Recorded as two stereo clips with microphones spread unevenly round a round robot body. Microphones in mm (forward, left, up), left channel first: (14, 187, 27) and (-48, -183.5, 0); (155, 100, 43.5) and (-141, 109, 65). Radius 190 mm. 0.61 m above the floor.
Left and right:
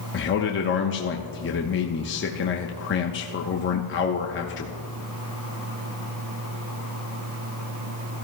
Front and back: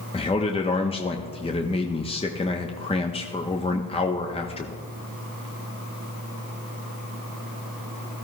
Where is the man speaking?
45° left, 0.8 m.